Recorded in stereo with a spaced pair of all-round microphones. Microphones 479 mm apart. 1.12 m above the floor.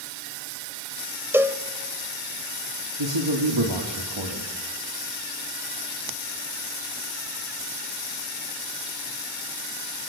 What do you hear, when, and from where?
1.3 s a cowbell: 5° right (ahead or behind), 1.1 m
3.0 s a man speaking: 70° right (ahead or behind), 3 m